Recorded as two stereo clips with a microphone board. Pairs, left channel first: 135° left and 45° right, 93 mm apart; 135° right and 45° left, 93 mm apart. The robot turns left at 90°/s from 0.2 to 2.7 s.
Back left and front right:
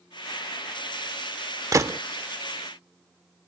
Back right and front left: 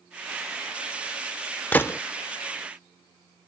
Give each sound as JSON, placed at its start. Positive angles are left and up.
{"t": 1.7, "sound": "a gunshot", "azimuth_deg": -75}